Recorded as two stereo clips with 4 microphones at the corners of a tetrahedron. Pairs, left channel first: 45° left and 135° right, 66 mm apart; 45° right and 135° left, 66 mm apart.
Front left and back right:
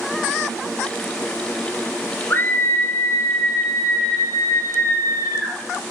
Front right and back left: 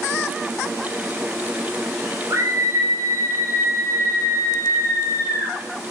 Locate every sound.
2.3 s a scream: 105° left, 3 m; by 5.6 s 90° left, 5 m